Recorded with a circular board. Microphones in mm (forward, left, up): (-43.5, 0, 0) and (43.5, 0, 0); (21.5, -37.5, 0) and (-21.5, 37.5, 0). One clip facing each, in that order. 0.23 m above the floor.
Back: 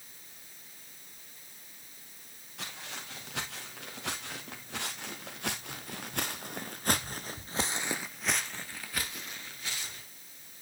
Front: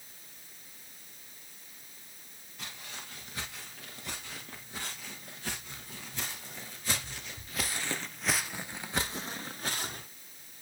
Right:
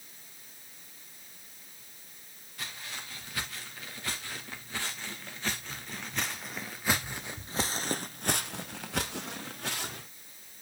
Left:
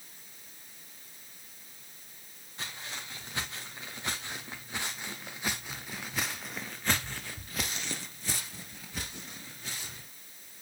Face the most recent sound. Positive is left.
turn(degrees=-40)